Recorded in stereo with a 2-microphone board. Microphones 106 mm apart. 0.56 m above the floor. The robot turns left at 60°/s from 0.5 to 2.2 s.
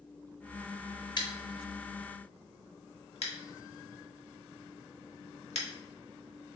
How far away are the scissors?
About 0.8 m.